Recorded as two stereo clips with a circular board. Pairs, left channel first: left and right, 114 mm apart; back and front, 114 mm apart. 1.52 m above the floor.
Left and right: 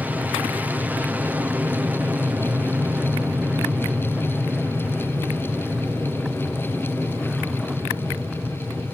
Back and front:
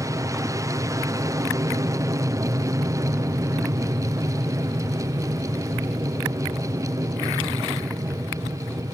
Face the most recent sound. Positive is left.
turn(degrees=-25)